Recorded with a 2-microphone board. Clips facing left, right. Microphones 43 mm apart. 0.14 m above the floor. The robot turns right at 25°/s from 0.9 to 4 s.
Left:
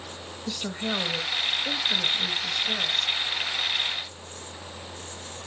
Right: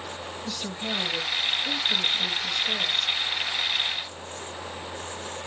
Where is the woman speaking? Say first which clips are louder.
Left 3 dB; 25° left (ahead or behind), 1.2 m.